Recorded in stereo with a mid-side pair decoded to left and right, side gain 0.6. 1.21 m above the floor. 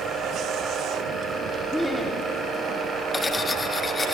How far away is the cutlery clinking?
About 1.4 m.